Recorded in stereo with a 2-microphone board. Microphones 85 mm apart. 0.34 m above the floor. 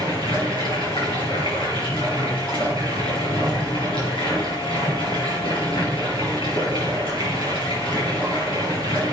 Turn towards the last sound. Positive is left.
turn(degrees=80)